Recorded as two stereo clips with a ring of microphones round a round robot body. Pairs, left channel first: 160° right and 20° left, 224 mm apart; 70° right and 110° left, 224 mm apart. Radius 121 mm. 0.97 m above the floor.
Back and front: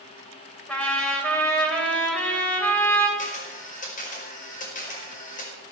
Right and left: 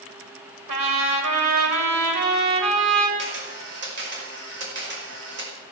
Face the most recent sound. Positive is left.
turn(degrees=150)